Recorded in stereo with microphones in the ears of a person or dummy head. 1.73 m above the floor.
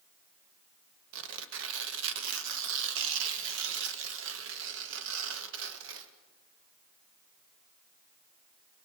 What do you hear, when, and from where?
1.1 s tearing paper: 75° right (ahead or behind), 1.3 m